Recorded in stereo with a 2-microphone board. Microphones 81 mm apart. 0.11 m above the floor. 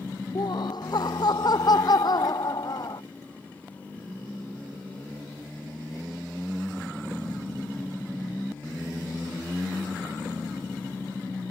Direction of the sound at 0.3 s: 60° left (ahead or behind).